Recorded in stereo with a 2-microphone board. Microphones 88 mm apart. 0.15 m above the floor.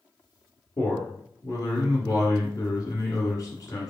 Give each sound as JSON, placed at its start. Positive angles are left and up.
{"t": 0.8, "sound": "a man speaking", "side_deg": 40, "distance_m": 1.5}